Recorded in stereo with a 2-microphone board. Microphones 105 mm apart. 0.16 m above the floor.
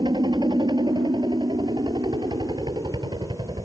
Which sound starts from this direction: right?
A helicopter, at 0.0 s.